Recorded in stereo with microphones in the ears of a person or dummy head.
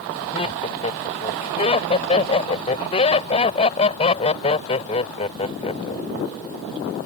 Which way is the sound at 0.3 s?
30° left (ahead or behind).